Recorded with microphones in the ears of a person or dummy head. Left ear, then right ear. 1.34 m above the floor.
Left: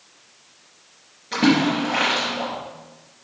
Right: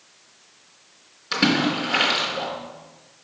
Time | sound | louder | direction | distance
1.3 | a splash | left 1 dB | 55° right (ahead or behind) | 2.5 m